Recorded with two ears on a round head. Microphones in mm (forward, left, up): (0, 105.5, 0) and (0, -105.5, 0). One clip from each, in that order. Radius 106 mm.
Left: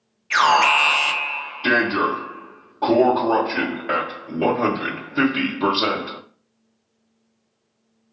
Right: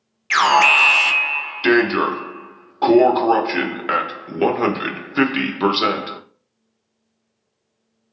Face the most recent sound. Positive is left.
turn(degrees=-55)  # may be behind; listen again after turning